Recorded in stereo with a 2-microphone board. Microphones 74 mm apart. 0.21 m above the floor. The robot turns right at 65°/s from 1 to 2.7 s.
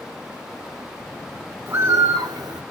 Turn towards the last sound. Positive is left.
turn(degrees=-80)